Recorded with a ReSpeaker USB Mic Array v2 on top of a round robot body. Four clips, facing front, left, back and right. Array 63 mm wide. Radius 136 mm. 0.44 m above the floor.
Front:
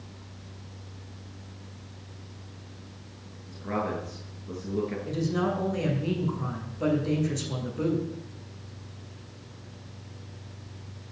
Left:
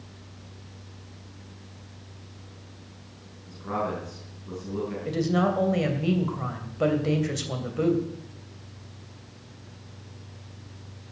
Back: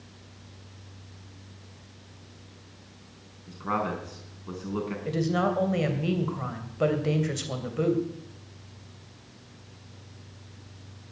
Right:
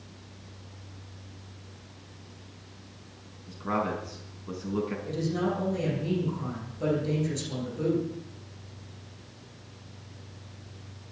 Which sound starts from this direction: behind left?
A woman speaking, at 5.0 s.